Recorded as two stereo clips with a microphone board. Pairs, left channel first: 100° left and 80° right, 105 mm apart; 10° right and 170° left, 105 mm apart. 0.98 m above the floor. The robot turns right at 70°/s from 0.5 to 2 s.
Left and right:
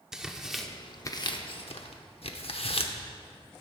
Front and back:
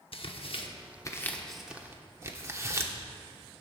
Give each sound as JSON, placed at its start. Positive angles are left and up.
{"t": 0.1, "sound": "tearing paper", "azimuth_deg": 5, "distance_m": 0.9}